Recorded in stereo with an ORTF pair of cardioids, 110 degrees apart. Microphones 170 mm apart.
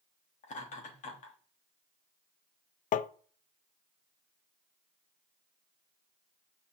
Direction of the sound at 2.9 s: 50° left.